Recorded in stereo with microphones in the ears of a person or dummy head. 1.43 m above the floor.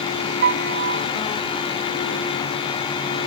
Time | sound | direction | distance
0.4 | a piano | 50° right (ahead or behind) | ?